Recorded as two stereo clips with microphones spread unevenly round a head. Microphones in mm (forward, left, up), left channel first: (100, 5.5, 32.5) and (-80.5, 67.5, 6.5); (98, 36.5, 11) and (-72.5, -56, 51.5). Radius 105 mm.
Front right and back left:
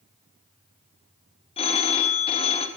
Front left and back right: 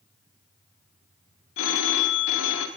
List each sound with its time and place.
1.6 s a phone ringing: 45° left, 1.1 m